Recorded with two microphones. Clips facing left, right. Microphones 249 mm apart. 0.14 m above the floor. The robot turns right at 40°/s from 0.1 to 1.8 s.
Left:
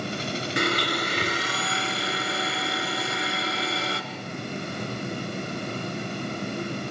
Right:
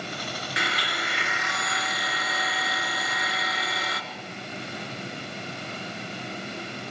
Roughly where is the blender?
Left.